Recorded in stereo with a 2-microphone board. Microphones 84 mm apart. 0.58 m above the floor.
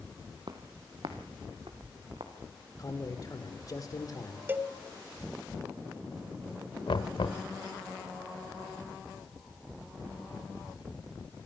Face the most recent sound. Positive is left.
turn(degrees=75)  # may be behind; listen again after turning